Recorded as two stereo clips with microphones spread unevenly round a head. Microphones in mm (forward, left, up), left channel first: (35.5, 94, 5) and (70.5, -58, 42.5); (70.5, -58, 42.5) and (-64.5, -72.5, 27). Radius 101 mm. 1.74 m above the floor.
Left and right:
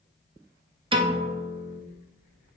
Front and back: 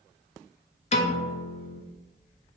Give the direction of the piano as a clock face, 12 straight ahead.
1 o'clock.